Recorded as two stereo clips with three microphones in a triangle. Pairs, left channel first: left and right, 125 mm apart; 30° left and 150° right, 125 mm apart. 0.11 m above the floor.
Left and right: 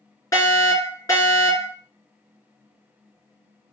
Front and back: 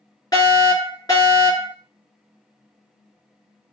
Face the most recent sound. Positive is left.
turn(degrees=60)